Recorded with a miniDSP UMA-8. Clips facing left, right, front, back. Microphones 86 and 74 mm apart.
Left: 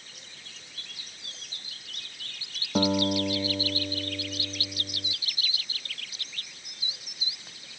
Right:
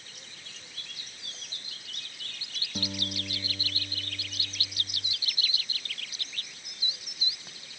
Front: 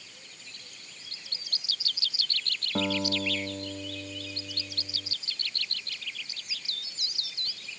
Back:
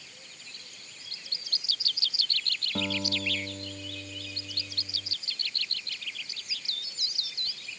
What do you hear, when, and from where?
2.8 s a guitar: 70° left